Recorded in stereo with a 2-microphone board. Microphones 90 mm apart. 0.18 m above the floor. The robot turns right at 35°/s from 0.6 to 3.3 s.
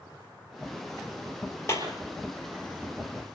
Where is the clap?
30° left (ahead or behind), 4 m; by 1.9 s 35° left (ahead or behind), 4 m.